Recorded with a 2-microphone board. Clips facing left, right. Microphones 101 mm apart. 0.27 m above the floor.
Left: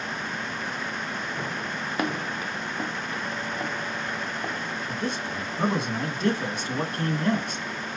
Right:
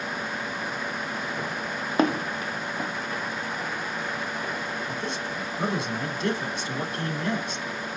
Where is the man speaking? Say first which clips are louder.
Left 1 dB; 50° left (ahead or behind), 2.5 m.